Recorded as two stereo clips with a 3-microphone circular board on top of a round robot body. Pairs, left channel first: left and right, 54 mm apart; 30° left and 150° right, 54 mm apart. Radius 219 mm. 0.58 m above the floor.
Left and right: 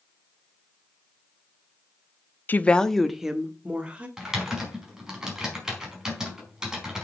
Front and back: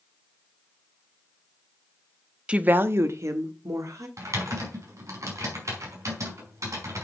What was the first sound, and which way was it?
A woman speaking, 140° left.